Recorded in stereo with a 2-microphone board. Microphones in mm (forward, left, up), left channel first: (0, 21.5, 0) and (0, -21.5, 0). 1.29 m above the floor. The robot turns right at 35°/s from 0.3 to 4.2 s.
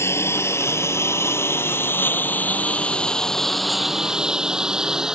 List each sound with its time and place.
0.0 s a lawn mower: 75° left (ahead or behind); by 5.2 s 15° right (ahead or behind)